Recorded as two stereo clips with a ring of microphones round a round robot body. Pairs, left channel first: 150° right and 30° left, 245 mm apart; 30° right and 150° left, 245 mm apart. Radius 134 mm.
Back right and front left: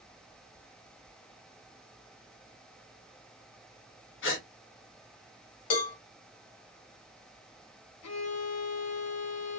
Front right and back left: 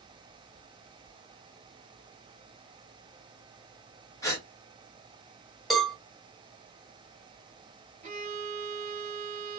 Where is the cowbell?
120° right, 1.7 m.